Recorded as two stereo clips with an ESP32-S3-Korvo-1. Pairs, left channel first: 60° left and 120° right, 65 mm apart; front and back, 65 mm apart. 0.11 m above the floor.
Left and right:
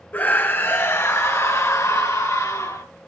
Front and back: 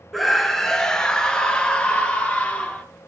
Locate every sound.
0.1 s a scream: 85° left, 1.9 m; by 2.8 s 65° left, 3.5 m